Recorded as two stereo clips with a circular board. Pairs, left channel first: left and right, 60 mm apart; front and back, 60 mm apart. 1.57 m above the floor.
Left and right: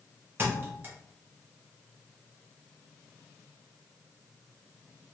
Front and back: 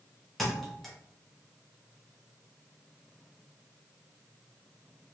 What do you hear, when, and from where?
0.4 s a thud: 85° right, 1.0 m